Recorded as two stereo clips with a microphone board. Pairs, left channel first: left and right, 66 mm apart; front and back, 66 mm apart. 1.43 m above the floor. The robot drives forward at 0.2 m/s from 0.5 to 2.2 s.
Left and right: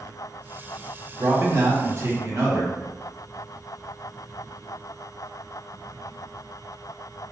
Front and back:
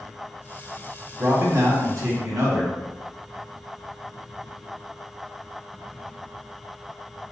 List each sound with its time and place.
1.2 s a man speaking: 130° right, 0.8 m; by 2.8 s 140° right, 0.9 m